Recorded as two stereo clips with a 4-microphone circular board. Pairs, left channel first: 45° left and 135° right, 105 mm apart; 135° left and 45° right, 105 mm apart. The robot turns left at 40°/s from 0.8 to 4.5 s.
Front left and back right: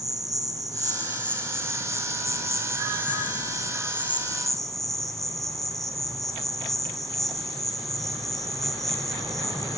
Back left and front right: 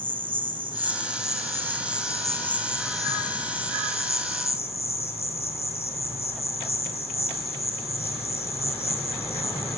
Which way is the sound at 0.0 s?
80° right.